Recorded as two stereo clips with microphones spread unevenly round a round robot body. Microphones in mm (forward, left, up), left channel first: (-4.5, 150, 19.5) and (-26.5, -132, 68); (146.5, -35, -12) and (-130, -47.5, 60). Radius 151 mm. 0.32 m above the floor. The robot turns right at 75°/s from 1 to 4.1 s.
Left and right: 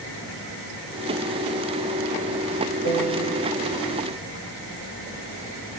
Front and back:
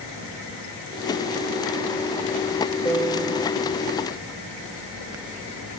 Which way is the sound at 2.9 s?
60° left.